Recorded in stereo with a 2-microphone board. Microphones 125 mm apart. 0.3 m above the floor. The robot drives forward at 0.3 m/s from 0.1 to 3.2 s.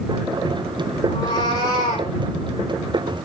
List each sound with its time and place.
1.1 s a cat meowing: 40° left (ahead or behind), 4.5 m